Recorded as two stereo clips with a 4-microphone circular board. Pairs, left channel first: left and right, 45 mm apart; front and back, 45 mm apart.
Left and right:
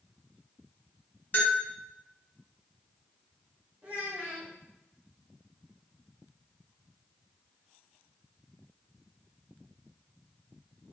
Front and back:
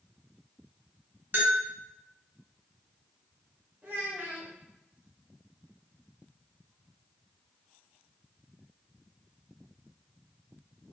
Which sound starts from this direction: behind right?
A child speaking, at 3.8 s.